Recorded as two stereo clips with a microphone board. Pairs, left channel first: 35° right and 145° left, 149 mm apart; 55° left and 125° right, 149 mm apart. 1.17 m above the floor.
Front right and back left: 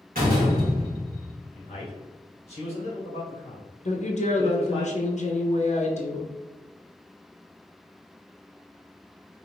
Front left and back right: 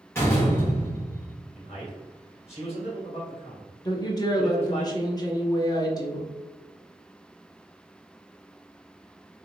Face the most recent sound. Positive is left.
turn(degrees=-5)